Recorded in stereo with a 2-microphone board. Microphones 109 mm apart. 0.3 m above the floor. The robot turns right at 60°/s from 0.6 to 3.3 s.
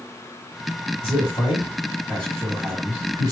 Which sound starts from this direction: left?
A man speaking, at 1.0 s.